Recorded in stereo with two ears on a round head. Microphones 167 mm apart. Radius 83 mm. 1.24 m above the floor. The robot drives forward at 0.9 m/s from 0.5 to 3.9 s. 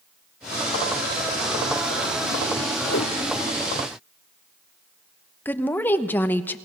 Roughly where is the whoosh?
Left.